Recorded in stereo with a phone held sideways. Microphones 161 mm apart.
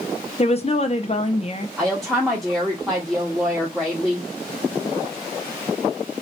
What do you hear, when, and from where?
0.4 s a woman speaking: 40° left (ahead or behind), 0.7 m
1.8 s a woman speaking: centre (ahead or behind), 0.9 m